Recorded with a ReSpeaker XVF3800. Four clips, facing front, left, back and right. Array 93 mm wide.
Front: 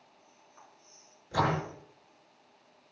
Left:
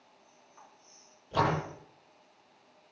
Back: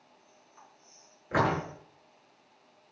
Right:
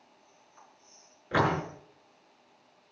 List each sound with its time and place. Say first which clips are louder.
1.3 s a door slam: right 2 dB, back 2 dB; 125° right, 7 m